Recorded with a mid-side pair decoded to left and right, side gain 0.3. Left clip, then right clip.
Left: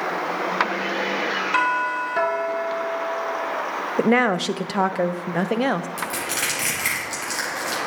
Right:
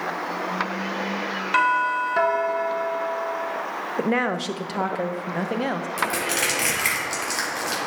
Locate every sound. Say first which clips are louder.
1.5 s a doorbell: right 3 dB; 10° right, 1.1 m
4.0 s a woman speaking: left 5 dB; 50° left, 0.5 m
6.0 s crushing: right 2 dB; 20° right, 4.5 m